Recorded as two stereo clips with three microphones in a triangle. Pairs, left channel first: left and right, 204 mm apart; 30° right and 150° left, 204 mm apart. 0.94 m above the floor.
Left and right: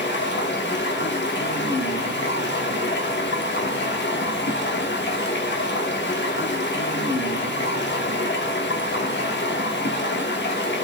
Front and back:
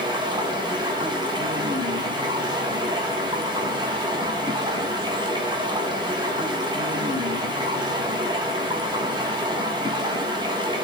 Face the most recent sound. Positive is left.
turn(degrees=85)